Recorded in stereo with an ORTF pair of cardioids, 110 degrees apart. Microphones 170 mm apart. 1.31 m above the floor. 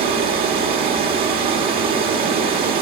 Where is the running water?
65° right, 2.0 m.